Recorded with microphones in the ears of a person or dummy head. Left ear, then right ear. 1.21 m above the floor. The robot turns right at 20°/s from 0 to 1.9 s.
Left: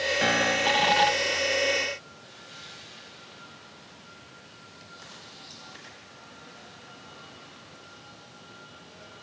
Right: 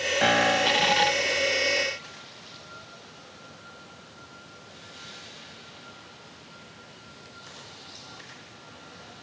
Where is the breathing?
No breathing in this recording.